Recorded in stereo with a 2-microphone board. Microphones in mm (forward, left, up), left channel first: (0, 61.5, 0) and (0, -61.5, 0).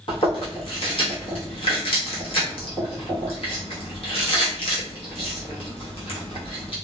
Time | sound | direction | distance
0.1 | chewing | 50° left (ahead or behind) | 1.0 m